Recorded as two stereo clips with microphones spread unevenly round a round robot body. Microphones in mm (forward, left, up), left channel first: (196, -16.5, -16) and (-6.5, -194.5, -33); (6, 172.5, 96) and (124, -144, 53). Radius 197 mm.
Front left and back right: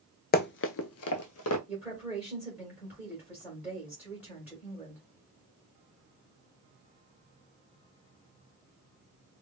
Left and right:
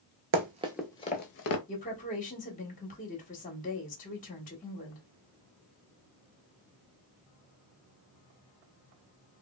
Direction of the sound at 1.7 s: 150° left.